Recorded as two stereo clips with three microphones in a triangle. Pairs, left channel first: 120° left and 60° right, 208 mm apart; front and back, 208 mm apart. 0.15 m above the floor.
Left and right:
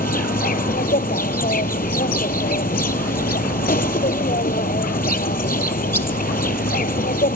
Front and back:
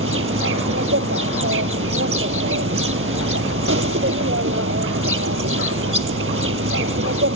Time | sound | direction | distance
0.0 | an insect | 170° left | 0.7 m